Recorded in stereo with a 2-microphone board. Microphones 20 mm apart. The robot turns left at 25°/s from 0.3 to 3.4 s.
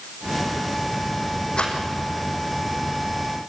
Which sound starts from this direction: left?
A rattle, at 1.6 s.